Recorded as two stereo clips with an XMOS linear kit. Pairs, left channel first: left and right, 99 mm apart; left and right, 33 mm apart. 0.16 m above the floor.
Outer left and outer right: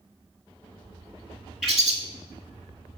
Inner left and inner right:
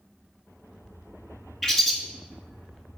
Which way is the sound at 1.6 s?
Centre (ahead or behind).